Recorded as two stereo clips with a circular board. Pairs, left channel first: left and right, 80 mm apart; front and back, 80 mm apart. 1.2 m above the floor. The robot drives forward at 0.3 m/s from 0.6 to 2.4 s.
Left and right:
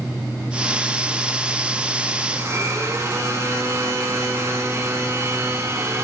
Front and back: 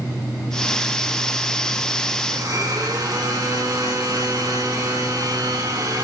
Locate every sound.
2.3 s a blender: 140° right, 2 m; by 6.0 s 145° right, 2 m